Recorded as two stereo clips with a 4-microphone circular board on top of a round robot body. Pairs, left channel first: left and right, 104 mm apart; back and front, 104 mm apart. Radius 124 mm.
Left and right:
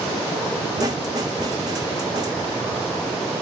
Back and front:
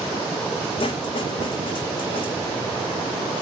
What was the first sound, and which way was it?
A snare drum, 145° right.